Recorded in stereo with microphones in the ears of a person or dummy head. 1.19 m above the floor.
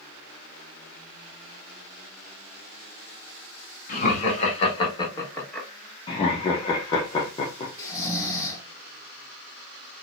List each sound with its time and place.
3.9 s laughter: 45° left (ahead or behind), 1.8 m; by 5.7 s 5° left (ahead or behind), 1.2 m
6.1 s laughter: 25° left (ahead or behind), 0.6 m
7.8 s snoring: 20° left (ahead or behind), 1.2 m